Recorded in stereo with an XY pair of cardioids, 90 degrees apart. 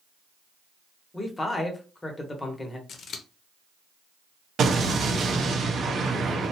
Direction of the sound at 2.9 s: 70° left.